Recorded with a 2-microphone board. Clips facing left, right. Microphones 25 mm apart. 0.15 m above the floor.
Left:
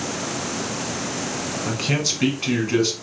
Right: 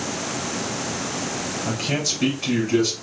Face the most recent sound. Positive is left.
turn(degrees=20)  # may be behind; listen again after turning